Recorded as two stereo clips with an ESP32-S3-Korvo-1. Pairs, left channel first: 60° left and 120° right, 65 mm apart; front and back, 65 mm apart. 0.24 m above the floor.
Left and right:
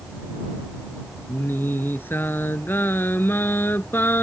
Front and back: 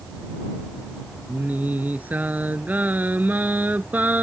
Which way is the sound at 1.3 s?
115° left.